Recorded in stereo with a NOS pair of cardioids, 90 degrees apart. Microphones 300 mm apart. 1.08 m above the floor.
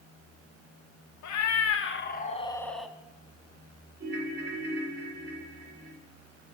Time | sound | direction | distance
1.2 | a cat meowing | 65° left | 1.2 m
4.0 | a ringtone | 35° right | 1.9 m